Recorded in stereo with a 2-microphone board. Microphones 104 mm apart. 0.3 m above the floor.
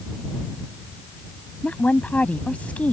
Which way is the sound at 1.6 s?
15° left (ahead or behind).